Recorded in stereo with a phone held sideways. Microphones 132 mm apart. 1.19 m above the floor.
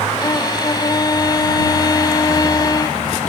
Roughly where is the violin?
Left.